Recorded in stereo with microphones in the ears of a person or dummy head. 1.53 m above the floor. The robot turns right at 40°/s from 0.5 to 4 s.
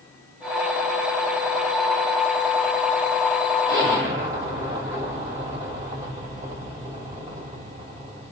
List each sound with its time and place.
3.7 s an explosion: 35° right (ahead or behind), 2 m; by 8.3 s 20° right (ahead or behind), 2 m